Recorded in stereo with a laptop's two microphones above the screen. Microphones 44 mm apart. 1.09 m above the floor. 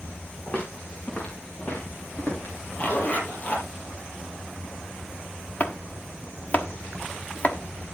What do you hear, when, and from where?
0.5 s footsteps: 25° left (ahead or behind), 5.5 m; by 2.5 s 50° left (ahead or behind), 6.5 m
2.8 s a zipper: 35° left (ahead or behind), 5 m
5.6 s chopping: 45° left (ahead or behind), 1.0 m